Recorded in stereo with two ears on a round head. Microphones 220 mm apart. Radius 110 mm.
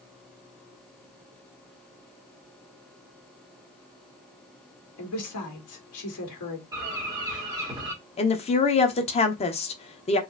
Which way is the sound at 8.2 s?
25° left (ahead or behind).